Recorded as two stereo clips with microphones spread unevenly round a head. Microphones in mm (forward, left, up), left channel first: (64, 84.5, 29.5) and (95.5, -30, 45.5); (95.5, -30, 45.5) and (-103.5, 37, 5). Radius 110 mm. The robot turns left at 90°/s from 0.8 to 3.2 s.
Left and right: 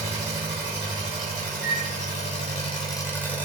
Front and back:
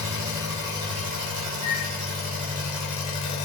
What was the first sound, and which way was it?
An engine running, 115° right.